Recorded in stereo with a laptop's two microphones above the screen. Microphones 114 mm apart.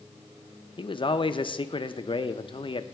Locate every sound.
0.8 s a man speaking: 50° left (ahead or behind), 0.5 m